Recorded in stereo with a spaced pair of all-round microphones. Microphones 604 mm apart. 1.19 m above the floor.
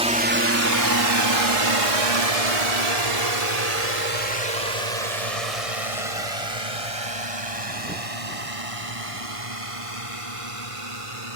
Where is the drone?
10° right (ahead or behind); by 11.4 s 60° right (ahead or behind).